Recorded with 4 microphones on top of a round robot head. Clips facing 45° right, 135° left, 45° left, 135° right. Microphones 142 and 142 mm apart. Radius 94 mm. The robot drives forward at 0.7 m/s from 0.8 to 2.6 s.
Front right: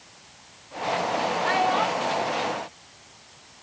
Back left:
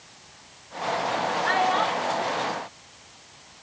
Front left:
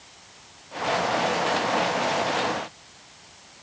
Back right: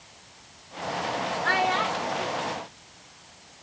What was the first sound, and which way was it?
A child speaking, 125° right.